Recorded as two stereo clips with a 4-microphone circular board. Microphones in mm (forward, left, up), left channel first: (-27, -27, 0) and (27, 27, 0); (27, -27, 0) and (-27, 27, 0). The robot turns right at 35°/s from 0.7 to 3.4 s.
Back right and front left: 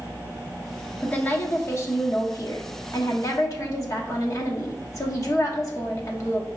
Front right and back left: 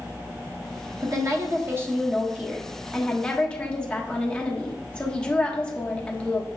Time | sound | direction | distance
1.0 | a woman speaking | 160° left | 1.0 m